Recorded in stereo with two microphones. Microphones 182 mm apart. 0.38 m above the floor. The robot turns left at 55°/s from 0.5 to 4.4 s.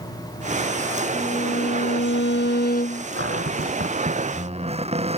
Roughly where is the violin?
Behind left.